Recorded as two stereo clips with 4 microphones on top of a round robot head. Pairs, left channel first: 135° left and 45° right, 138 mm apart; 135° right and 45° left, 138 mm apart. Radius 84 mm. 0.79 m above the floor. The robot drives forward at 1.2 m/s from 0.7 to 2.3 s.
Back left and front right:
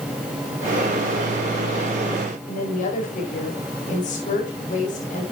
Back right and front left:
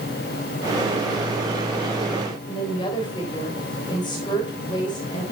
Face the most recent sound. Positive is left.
turn(degrees=165)